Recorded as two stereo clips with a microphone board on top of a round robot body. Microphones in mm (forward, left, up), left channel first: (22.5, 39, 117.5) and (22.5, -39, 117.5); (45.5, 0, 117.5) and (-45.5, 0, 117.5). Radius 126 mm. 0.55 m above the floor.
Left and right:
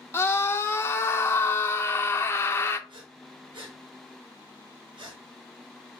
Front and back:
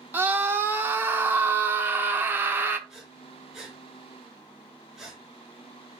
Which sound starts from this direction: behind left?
A scream, at 0.1 s.